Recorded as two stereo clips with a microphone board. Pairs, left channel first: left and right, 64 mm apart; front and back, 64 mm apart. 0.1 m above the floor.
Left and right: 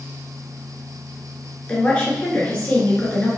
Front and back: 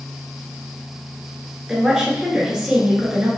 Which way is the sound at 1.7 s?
120° left.